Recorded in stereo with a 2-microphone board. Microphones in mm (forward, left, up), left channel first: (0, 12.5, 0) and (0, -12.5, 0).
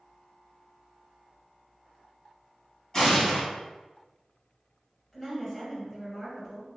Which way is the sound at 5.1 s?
10° left (ahead or behind).